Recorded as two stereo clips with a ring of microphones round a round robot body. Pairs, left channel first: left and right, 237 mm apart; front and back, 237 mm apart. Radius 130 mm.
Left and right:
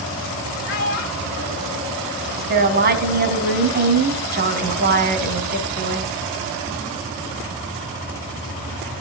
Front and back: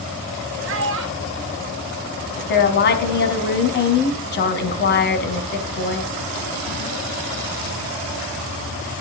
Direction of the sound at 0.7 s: 145° left.